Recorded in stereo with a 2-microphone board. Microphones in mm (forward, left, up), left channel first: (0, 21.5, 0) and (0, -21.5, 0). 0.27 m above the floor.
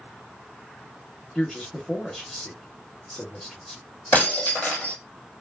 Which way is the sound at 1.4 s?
10° left (ahead or behind).